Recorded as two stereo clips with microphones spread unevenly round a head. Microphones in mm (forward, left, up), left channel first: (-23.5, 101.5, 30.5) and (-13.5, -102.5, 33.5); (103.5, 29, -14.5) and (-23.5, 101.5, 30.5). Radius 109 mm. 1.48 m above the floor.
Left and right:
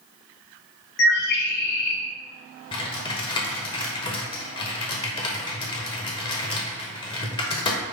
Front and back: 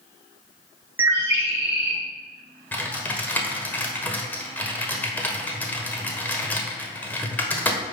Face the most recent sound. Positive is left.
turn(degrees=75)